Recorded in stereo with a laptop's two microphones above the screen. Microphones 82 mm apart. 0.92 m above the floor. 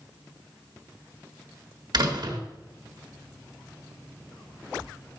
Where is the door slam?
60° right (ahead or behind), 1.2 m.